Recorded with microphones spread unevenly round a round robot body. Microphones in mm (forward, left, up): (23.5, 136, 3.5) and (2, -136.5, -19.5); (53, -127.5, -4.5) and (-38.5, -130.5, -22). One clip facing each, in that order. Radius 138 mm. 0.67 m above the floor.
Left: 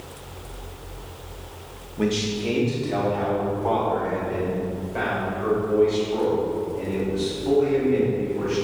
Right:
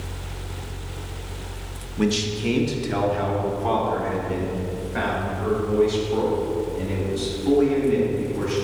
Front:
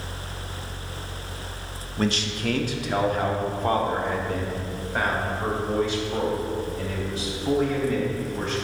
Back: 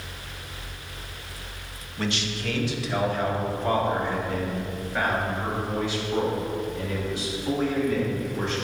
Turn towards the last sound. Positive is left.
turn(degrees=-40)